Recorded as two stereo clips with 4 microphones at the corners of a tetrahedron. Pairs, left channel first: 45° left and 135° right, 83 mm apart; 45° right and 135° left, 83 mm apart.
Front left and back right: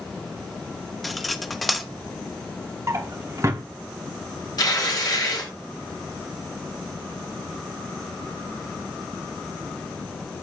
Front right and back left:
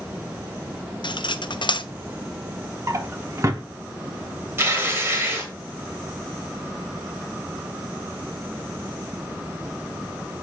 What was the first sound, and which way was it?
Cutlery clinking, 45° right.